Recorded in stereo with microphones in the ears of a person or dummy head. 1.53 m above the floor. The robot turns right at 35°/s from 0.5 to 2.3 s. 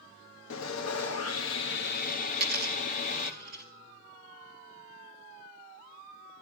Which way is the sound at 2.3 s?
45° right (ahead or behind).